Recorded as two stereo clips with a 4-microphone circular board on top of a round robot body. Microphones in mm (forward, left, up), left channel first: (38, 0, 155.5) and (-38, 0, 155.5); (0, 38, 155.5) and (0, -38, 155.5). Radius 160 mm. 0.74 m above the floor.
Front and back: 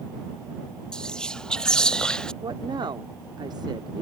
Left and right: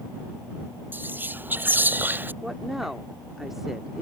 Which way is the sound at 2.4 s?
175° right.